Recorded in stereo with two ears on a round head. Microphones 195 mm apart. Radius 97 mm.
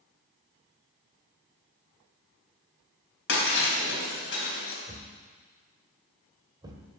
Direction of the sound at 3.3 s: 60° left (ahead or behind).